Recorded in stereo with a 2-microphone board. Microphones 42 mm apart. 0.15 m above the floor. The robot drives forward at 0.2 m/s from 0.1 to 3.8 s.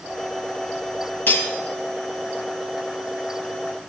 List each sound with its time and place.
1.3 s cutlery clinking: 50° left (ahead or behind), 2 m